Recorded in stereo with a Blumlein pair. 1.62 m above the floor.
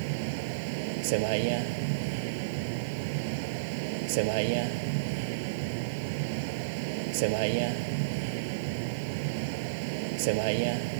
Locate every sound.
0.0 s a vehicle: 45° right